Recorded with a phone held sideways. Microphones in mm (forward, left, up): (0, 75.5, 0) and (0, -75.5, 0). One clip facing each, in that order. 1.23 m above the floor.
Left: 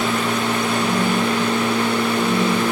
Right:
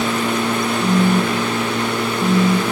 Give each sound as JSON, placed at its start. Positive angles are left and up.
{"t": 0.8, "sound": "a phone buzzing", "side_deg": -35, "distance_m": 1.0}